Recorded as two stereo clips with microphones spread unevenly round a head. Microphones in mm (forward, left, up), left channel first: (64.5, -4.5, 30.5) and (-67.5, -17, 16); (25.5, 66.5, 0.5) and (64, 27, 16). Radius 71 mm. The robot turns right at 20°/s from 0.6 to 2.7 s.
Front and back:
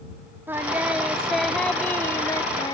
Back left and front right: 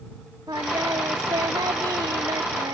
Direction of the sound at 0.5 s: 95° right.